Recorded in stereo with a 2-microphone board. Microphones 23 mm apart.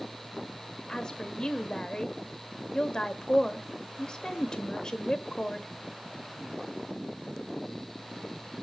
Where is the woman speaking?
40° left (ahead or behind), 1.1 m.